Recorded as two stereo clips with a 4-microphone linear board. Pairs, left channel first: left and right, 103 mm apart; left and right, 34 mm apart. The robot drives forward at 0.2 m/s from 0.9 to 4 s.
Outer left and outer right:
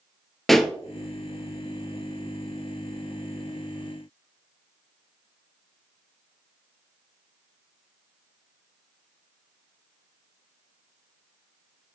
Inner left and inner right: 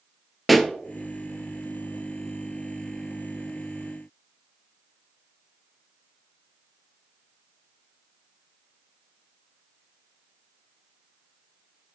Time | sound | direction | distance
0.5 | a pop | centre (ahead or behind) | 0.5 m